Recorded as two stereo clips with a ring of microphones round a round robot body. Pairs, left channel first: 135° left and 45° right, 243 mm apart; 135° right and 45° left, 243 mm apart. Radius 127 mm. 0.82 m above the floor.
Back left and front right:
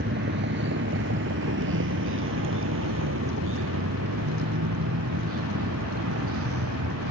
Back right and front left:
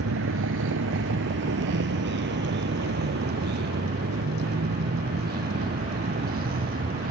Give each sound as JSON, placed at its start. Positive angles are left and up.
{"t": 0.0, "sound": "a vehicle", "azimuth_deg": 5}